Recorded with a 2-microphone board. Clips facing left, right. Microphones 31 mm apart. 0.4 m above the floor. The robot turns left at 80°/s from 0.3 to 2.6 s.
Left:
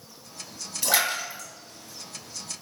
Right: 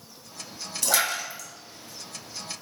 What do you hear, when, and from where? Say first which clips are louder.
0.8 s a splash: left 1 dB; 15° left (ahead or behind), 1.0 m